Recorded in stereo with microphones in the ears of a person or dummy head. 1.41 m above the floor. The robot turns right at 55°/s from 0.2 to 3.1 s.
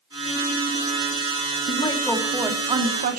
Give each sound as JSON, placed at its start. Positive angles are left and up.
{"t": 1.7, "sound": "a woman speaking", "azimuth_deg": 145, "distance_m": 2.5}